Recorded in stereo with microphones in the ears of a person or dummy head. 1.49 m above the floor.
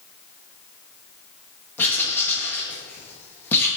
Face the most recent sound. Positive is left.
turn(degrees=10)  # may be behind; listen again after turning